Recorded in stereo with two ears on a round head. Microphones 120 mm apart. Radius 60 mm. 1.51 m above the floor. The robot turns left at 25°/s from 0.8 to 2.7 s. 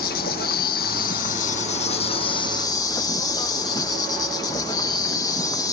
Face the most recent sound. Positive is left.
turn(degrees=25)